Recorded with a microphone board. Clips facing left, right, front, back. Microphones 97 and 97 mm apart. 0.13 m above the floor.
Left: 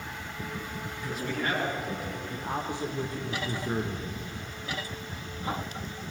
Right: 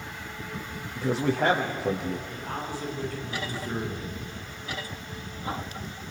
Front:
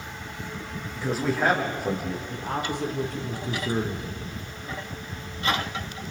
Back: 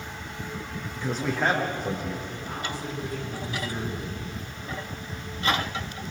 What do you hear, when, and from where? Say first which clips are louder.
0.9 s a man speaking: right 9 dB, front 2 dB; 85° right, 7 m
2.3 s a man speaking: left 1 dB, front 4 dB; 25° left, 4.5 m